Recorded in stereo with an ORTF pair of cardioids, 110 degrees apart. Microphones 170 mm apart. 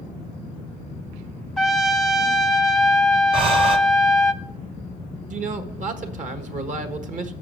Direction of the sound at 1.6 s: 5° left.